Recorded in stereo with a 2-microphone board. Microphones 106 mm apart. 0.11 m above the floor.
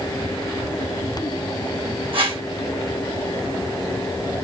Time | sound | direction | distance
2.1 | a whoosh | 60° right (ahead or behind) | 2.5 m